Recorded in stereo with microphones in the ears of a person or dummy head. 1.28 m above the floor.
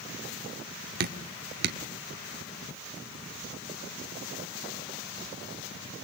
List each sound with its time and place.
1.0 s dripping: 55° right (ahead or behind), 1.3 m